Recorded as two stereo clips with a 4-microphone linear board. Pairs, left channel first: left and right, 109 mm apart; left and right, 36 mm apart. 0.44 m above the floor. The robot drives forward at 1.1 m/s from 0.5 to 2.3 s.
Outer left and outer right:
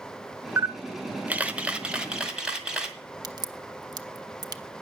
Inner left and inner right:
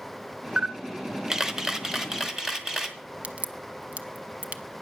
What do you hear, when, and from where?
0.6 s a camera shutter: 20° right (ahead or behind), 0.5 m; by 3.0 s 5° right (ahead or behind), 1.8 m
3.2 s a crack: 40° right (ahead or behind), 0.8 m